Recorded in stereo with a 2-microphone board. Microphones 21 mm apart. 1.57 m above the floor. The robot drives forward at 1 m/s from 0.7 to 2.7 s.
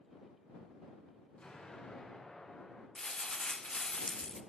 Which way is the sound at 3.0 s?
35° left (ahead or behind).